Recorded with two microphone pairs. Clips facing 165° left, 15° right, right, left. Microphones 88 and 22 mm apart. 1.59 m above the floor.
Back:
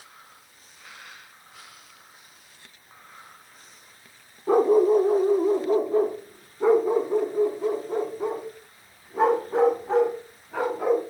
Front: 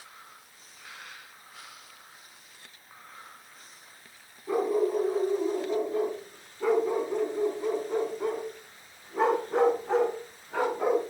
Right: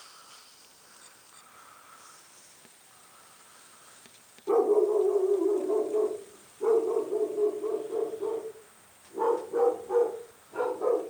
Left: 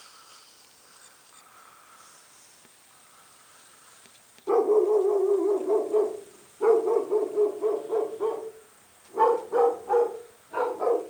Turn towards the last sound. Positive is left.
turn(degrees=70)